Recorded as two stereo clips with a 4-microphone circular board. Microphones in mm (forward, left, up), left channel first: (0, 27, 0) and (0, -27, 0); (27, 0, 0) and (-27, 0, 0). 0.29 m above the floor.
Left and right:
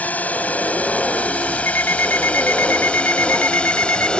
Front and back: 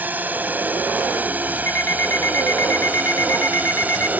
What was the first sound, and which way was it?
A drone, 135° left.